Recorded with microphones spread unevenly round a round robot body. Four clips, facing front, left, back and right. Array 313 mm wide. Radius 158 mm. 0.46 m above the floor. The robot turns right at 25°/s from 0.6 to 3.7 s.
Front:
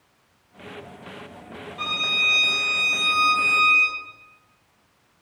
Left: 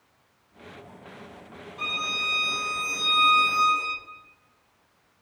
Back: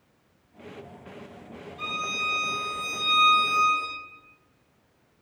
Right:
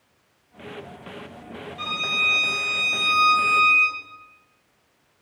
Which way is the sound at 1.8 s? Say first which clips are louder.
Right 3 dB, front 2 dB; 35° left.